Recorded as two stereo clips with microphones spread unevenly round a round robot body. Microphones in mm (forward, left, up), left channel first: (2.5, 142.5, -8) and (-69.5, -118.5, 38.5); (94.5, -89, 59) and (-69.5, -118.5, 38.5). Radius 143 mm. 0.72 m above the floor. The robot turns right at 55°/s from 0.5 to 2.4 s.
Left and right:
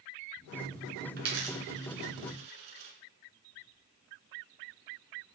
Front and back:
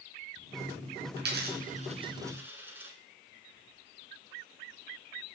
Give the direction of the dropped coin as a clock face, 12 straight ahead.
5 o'clock.